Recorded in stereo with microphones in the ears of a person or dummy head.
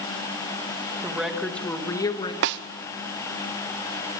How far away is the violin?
No violin in this recording.